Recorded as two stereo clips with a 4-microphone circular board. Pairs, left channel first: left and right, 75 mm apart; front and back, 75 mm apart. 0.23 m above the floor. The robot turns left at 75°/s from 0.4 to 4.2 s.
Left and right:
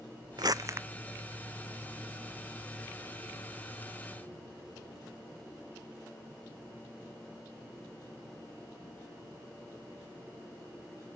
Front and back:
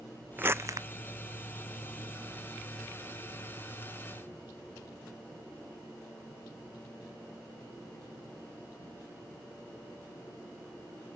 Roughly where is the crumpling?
Behind right.